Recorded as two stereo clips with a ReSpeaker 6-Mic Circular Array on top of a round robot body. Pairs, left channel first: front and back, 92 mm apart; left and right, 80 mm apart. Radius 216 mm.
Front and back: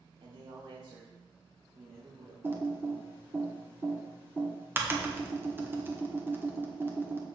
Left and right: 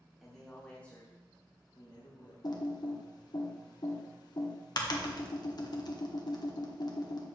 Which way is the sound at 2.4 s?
115° left.